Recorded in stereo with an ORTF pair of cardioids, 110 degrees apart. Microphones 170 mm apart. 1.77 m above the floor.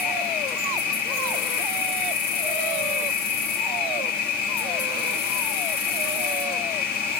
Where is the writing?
I don't hear writing.